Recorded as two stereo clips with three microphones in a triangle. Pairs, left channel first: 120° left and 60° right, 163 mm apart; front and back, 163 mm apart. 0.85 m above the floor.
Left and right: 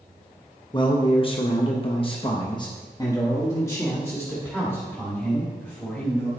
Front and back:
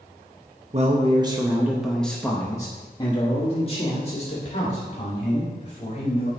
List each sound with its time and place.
0.7 s a man speaking: 165° left, 0.8 m; by 6.3 s 40° left, 3 m